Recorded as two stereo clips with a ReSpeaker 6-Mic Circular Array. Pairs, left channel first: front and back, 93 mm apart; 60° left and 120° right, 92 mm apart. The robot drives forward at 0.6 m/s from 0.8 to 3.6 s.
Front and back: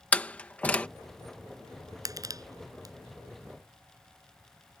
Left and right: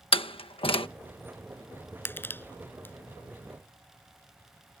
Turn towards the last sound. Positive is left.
turn(degrees=130)